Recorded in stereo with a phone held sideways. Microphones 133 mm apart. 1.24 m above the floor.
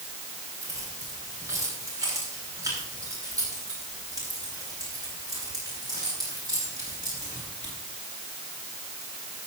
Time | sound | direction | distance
0.6 | keys jangling | 25° right (ahead or behind) | 9.5 m